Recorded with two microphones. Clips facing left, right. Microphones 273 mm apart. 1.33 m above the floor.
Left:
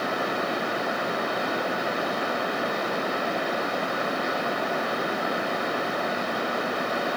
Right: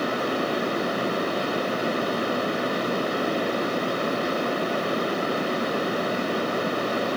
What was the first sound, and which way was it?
Only background noise.